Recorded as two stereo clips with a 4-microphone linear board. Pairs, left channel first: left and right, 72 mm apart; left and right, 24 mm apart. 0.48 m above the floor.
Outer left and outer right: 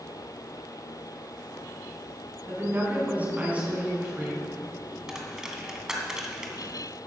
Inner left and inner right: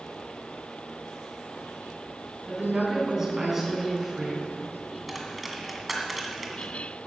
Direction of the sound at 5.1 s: 10° right (ahead or behind).